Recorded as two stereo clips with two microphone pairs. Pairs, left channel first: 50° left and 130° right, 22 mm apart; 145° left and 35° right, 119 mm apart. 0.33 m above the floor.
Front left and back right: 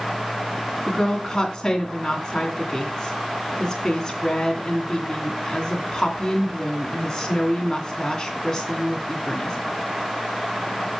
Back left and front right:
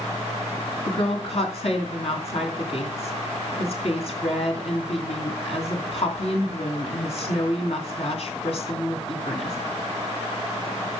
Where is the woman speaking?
115° left, 2.5 m.